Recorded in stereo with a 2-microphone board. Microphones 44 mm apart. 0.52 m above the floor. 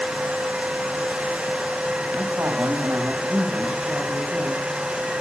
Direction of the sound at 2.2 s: 70° right (ahead or behind).